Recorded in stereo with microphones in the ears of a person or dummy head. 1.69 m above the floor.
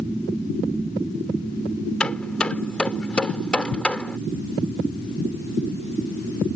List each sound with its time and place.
2.0 s hammering: 10° left (ahead or behind)